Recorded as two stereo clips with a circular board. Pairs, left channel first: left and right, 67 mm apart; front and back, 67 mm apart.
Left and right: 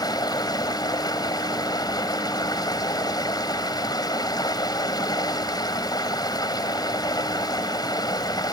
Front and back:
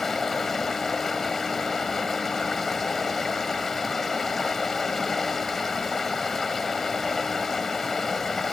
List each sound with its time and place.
0.0 s running water: 85° left